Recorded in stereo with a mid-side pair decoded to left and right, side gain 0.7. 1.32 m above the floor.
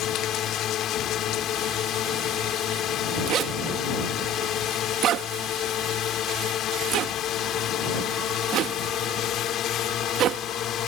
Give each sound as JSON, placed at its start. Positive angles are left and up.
{"t": 0.0, "sound": "a drone", "azimuth_deg": 45}
{"t": 3.3, "sound": "a zipper", "azimuth_deg": -50}